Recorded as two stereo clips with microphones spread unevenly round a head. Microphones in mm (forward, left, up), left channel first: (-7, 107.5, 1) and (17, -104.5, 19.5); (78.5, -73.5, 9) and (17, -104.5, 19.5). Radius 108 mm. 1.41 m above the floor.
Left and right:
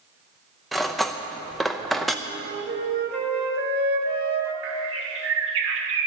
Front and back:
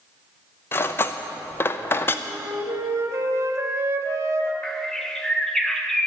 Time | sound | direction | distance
0.7 | cutlery clinking | straight ahead | 0.6 m
2.2 | a flute | 120° right | 1.8 m
4.6 | a bird | 55° right | 1.5 m